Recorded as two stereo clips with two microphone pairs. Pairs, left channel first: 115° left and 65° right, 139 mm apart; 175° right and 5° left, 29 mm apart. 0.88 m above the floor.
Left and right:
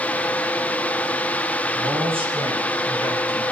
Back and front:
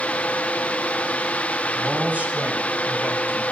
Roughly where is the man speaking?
Ahead.